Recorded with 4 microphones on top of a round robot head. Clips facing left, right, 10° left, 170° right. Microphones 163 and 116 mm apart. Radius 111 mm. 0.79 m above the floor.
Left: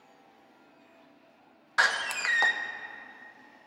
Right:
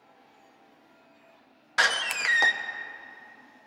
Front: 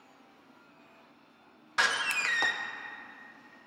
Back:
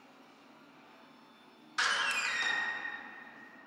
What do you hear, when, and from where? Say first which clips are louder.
1.8 s a door slam: right 1 dB, front 3 dB; 20° right, 0.5 m